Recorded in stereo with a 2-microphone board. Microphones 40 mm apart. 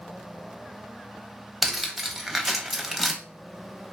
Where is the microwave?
I don't hear a microwave.